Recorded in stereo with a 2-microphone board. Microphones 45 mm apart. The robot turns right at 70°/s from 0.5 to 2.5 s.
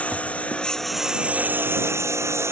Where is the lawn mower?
155° left; by 2.5 s 65° right.